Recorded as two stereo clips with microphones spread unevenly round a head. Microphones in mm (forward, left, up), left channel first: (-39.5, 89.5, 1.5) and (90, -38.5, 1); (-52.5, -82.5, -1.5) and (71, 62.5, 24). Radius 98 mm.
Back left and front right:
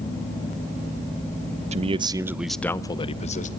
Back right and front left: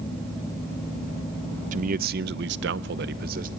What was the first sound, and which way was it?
A man speaking, 5° left.